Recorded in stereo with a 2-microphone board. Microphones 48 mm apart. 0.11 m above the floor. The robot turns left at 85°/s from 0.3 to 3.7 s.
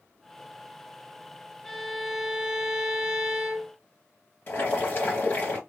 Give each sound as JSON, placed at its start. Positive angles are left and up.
{"t": 1.6, "sound": "a violin", "side_deg": 10, "distance_m": 0.8}
{"t": 4.5, "sound": "boiling", "side_deg": 50, "distance_m": 2.5}